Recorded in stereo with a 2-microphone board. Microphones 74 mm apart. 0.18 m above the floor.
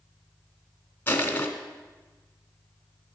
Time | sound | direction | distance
1.1 | crushing | 30° left (ahead or behind) | 1.2 m